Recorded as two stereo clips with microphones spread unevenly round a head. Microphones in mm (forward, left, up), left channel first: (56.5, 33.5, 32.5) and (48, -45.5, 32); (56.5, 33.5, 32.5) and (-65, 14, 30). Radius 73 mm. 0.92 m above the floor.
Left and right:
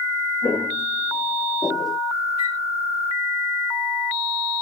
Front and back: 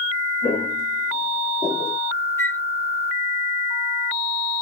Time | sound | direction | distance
0.4 | footsteps | 35° left | 1.7 m
2.4 | a flute | 80° left | 0.9 m